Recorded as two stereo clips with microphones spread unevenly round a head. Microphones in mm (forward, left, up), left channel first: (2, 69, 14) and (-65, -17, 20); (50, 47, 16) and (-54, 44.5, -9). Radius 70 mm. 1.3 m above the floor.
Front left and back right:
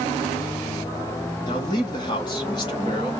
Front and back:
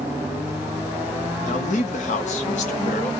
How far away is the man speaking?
About 1.1 m.